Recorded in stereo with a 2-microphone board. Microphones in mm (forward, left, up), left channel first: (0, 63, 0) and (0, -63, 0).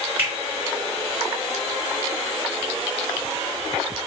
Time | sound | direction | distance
0.2 | a finger snap | 15° right (ahead or behind) | 1.5 m